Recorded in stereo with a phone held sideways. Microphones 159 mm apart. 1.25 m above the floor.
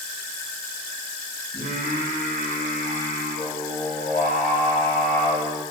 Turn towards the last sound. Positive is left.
turn(degrees=90)